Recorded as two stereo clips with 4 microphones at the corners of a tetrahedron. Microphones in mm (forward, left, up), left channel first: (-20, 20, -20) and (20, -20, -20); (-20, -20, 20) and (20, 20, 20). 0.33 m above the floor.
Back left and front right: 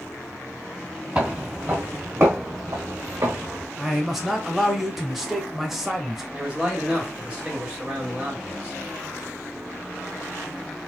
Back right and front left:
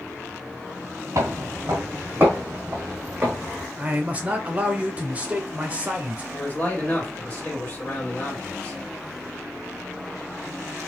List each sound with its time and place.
1.1 s footsteps: 25° left, 0.8 m; by 3.7 s 30° right, 1.8 m
3.8 s a man speaking: 35° left, 0.8 m
6.3 s a man speaking: 100° right, 1.5 m